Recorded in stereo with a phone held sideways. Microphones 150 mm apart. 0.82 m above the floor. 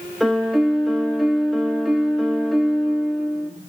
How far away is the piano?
About 1.1 m.